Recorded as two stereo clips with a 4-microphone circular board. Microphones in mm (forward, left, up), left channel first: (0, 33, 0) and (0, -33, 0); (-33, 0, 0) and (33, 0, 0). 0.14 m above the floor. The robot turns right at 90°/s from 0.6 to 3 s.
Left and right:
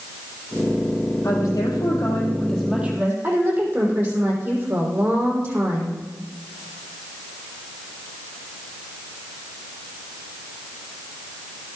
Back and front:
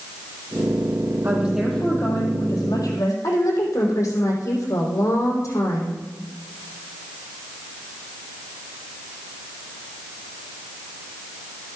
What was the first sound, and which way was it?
A woman speaking, 55° left.